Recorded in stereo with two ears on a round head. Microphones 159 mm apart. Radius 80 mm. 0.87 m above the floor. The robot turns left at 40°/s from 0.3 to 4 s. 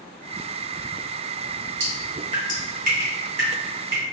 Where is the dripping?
20° right (ahead or behind), 1.6 m; by 4.0 s 60° right (ahead or behind), 1.6 m.